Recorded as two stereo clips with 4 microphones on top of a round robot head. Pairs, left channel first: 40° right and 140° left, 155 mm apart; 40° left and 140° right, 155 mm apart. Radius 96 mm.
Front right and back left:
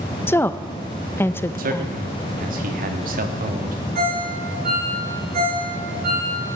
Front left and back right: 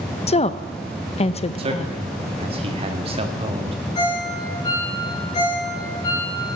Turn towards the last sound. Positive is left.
turn(degrees=110)